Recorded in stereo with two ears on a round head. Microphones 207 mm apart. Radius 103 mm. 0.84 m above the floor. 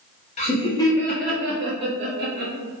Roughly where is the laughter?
Left.